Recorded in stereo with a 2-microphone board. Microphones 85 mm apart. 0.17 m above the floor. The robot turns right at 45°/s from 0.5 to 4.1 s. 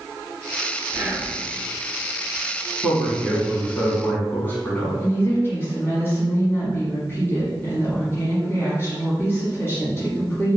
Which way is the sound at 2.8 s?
Centre (ahead or behind).